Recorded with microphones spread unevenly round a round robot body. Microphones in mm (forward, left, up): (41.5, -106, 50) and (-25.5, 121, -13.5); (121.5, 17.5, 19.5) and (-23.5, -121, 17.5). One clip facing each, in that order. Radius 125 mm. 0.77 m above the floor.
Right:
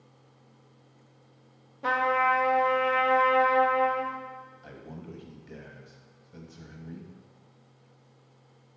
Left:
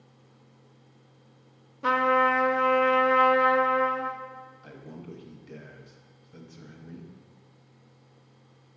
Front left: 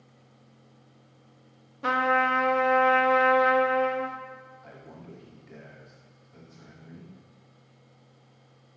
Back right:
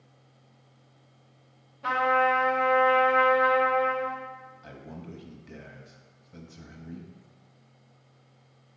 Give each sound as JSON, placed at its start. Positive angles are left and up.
{"t": 1.8, "sound": "a trumpet", "azimuth_deg": 55, "distance_m": 0.8}
{"t": 4.6, "sound": "a man speaking", "azimuth_deg": 175, "distance_m": 1.0}